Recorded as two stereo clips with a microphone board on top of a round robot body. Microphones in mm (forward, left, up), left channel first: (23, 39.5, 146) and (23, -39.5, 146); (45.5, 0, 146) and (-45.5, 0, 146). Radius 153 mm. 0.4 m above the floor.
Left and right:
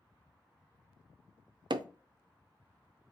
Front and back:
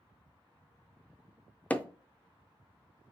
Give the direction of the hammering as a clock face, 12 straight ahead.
2 o'clock.